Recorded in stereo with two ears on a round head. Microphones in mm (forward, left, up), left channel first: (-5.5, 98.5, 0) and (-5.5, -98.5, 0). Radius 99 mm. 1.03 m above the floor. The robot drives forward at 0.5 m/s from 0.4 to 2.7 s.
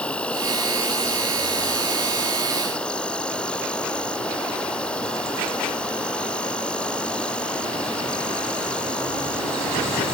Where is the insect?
5° left (ahead or behind).